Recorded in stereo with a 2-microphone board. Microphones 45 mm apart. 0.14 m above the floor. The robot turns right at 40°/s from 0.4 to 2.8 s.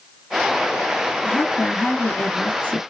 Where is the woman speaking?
75° left, 1.5 m; by 2.8 s 135° left, 1.5 m.